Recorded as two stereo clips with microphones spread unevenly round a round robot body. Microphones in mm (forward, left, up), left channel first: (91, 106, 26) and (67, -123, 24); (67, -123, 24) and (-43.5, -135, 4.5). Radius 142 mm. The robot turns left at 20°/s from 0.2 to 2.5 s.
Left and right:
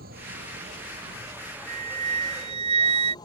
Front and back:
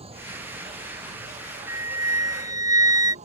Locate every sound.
0.0 s an insect: 155° right; by 3.2 s 160° left
1.7 s a flute: 130° right; by 3.1 s 150° right